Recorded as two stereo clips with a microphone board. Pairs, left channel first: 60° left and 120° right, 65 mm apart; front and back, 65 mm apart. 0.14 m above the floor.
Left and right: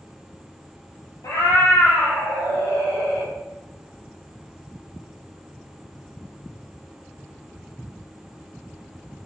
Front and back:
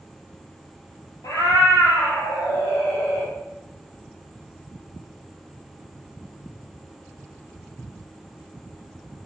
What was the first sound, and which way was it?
A cat meowing, 25° left.